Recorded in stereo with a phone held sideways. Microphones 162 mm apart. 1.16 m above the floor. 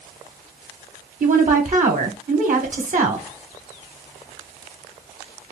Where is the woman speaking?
50° right (ahead or behind), 0.8 m.